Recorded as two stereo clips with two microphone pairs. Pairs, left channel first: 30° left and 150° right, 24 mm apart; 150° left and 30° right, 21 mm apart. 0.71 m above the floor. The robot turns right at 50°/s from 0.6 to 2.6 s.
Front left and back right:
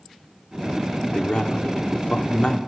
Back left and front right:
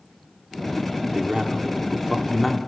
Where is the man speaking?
5° right, 1.9 m; by 2.6 s 70° left, 1.9 m.